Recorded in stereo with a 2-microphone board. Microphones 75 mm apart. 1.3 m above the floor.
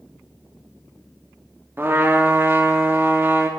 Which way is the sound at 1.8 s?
30° right (ahead or behind).